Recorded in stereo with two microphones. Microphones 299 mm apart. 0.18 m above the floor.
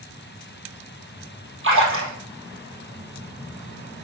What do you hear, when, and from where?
1.6 s a splash: 45° right (ahead or behind), 2.5 m